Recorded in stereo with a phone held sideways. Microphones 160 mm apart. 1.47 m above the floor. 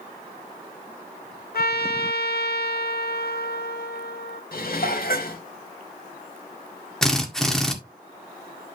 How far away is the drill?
About 1.7 m.